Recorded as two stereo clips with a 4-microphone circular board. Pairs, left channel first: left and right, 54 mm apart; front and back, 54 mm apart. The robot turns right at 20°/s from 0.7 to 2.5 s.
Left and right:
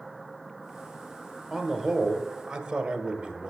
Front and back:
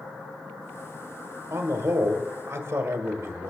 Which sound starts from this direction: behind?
A man speaking, at 1.5 s.